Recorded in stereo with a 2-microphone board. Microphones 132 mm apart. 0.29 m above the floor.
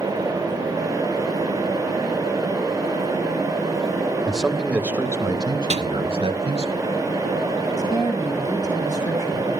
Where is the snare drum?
60° right (ahead or behind), 2 m.